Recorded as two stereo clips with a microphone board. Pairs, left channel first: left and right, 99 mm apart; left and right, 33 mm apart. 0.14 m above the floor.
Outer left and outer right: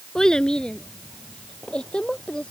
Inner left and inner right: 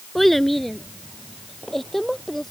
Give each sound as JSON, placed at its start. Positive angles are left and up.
{"t": 0.1, "sound": "a child speaking", "side_deg": 5}